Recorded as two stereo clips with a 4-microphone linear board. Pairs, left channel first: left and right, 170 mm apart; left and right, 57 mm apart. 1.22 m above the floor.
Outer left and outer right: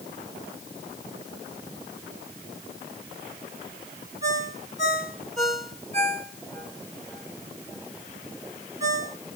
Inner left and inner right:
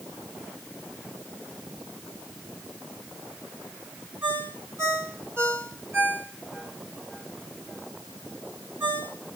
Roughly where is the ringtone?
Right.